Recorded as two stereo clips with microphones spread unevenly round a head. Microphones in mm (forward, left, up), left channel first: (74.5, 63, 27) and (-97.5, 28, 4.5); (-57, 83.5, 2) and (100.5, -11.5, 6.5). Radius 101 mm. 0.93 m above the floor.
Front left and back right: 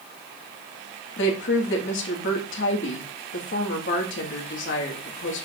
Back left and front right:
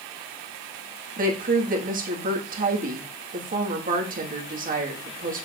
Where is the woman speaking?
10° left, 1.6 m.